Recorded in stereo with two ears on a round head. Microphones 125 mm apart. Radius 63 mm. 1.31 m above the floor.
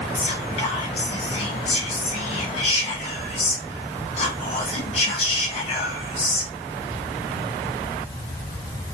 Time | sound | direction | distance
0.1 | whispering | 45° left (ahead or behind) | 0.5 m